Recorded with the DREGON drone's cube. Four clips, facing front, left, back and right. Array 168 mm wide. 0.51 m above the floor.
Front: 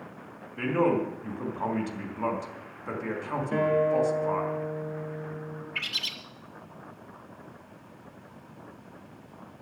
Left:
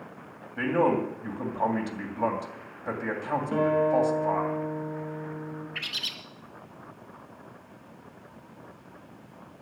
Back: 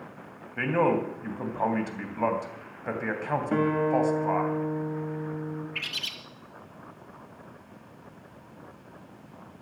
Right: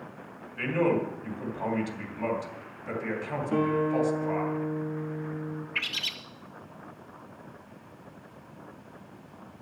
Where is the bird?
90° right, 1.8 m.